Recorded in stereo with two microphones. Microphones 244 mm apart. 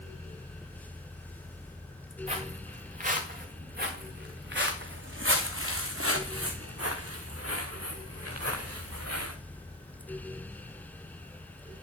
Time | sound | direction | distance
2.3 | footsteps | 25° right (ahead or behind) | 3.5 m